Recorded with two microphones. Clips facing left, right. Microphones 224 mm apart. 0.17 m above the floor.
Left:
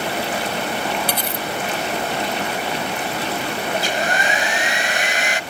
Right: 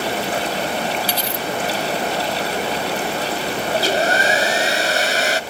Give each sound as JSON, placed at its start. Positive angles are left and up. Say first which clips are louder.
{"t": 1.1, "sound": "cutlery clinking", "louder": "right 1 dB", "side_deg": 55}
{"t": 3.7, "sound": "a hair dryer", "louder": "right 6 dB", "side_deg": -40}